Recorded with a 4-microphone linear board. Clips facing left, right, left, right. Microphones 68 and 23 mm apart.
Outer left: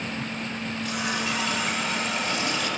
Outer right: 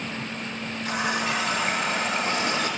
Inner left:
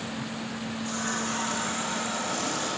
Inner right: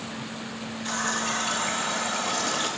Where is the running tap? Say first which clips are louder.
Outer right 4 dB, inner right 4 dB; 40° right (ahead or behind), 2 m.